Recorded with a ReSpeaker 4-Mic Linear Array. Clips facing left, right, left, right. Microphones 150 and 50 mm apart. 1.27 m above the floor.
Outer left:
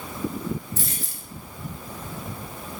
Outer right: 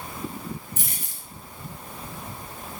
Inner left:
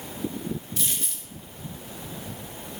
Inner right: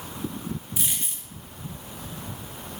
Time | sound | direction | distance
0.8 | a dropped coin | 15° right (ahead or behind) | 0.8 m